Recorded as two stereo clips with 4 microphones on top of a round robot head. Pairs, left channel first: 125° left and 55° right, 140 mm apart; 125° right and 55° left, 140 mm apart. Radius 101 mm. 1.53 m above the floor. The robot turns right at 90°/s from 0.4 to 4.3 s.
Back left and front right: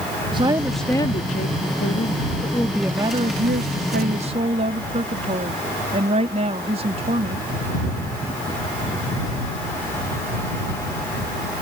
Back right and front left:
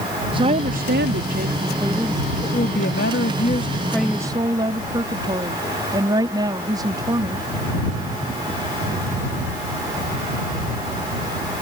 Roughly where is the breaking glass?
No breaking glass in this recording.